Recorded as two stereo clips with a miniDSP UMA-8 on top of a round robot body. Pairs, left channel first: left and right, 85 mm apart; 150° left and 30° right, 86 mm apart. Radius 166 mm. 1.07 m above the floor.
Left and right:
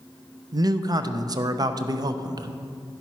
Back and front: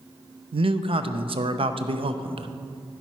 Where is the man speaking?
45° right, 0.7 m.